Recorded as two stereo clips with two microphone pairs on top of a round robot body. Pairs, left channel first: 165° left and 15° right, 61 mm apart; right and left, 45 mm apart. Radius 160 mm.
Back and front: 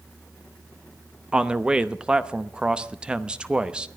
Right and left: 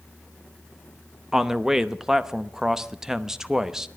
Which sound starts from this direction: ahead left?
A man speaking, at 1.3 s.